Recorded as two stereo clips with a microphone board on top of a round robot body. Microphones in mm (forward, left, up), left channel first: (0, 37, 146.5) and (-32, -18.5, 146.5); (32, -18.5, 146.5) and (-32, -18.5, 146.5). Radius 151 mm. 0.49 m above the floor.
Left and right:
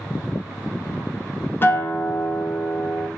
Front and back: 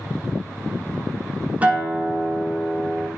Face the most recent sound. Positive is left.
turn(degrees=115)